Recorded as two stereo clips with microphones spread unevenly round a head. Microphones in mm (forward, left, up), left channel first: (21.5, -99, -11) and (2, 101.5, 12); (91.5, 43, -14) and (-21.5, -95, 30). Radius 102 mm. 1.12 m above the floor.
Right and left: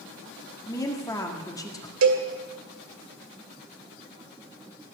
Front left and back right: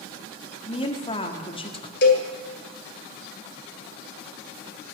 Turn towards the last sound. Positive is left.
turn(degrees=100)